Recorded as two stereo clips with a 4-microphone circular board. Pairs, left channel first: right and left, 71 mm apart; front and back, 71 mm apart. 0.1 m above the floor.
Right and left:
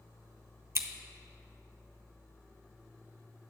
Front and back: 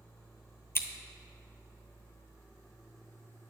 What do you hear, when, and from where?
0.8 s scissors: 50° left, 0.6 m